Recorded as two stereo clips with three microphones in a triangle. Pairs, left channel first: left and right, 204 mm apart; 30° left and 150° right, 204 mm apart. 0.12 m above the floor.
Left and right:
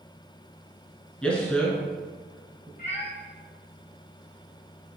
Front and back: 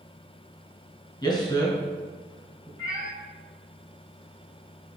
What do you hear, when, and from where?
1.2 s a man speaking: 15° left, 1.1 m
2.8 s a cat meowing: 145° left, 1.0 m